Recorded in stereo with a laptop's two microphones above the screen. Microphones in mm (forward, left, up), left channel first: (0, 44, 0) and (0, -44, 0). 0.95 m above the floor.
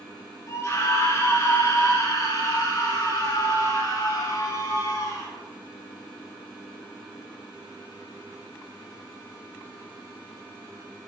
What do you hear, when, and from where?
0.5 s a scream: 35° left (ahead or behind), 3 m; by 5.3 s 40° left (ahead or behind), 8 m